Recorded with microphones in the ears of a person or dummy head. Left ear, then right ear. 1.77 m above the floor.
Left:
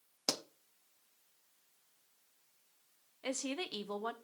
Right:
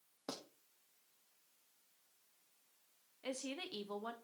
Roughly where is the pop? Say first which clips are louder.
Left 11 dB; left.